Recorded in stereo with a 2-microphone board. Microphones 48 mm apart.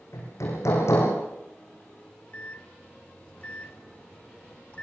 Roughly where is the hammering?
Left.